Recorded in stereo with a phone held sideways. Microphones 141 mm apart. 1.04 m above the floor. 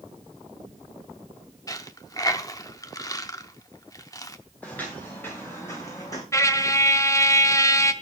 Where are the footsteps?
10° left (ahead or behind), 7 m; by 6.2 s 25° left (ahead or behind), 7 m.